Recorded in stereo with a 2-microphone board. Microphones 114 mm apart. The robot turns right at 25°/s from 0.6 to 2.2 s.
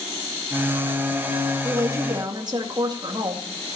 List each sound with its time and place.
1.6 s a woman speaking: 25° right (ahead or behind), 2 m; by 3.4 s 35° right (ahead or behind), 2 m